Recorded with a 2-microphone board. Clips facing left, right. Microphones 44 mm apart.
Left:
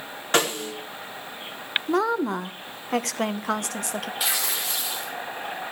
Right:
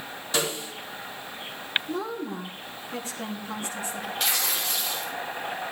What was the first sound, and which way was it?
A snare drum, 50° left (ahead or behind).